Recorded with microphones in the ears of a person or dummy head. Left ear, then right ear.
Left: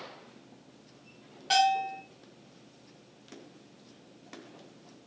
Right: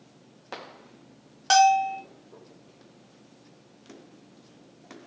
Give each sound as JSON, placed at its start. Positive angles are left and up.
{"t": 1.5, "sound": "a bell", "side_deg": -50, "distance_m": 0.7}